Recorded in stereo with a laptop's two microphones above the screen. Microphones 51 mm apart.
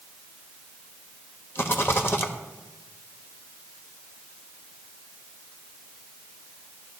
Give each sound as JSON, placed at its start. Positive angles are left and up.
{"t": 1.6, "sound": "a rattle", "side_deg": 55, "distance_m": 1.2}